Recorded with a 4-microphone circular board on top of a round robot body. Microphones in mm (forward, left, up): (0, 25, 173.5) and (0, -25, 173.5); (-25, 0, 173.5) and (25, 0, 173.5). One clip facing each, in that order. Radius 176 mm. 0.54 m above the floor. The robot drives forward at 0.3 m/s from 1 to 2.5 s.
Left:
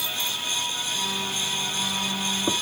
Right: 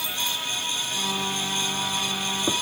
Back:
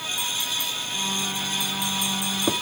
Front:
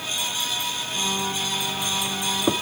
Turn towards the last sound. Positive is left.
No sound to turn to.